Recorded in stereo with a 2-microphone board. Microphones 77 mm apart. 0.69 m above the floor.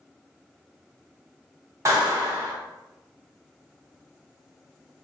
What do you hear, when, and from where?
1.9 s a clap: 40° right (ahead or behind), 1.4 m